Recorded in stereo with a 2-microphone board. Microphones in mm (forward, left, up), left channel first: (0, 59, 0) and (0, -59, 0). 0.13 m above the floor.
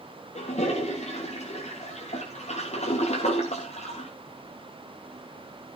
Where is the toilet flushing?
70° left (ahead or behind), 4.5 m.